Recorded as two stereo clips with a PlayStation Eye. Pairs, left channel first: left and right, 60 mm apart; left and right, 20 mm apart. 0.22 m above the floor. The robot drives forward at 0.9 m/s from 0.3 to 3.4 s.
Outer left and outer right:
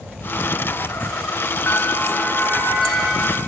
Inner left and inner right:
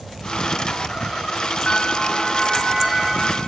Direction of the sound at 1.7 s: 40° left (ahead or behind).